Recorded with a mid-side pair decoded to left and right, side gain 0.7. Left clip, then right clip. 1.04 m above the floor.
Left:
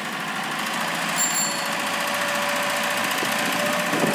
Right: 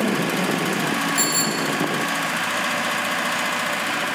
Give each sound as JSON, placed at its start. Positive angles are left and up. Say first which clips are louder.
{"t": 1.2, "sound": "a bicycle bell", "louder": "right 2 dB", "azimuth_deg": -20, "distance_m": 4.0}